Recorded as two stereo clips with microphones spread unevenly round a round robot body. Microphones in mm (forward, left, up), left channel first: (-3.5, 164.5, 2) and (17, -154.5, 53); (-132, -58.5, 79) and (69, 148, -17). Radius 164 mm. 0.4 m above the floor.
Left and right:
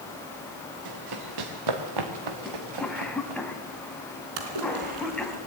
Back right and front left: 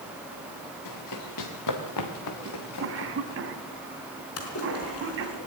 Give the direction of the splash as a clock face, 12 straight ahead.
3 o'clock.